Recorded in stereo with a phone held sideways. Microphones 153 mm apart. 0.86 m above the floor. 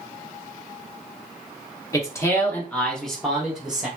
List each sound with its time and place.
1.9 s a man speaking: 20° left (ahead or behind), 0.8 m; by 3.9 s 5° right (ahead or behind), 1.2 m